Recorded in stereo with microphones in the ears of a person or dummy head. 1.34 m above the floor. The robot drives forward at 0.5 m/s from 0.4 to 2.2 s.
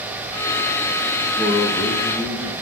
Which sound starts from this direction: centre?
A man speaking, at 1.4 s.